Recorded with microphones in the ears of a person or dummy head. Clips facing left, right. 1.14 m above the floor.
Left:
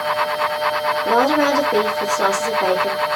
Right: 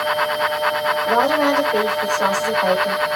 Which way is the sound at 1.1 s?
70° left (ahead or behind).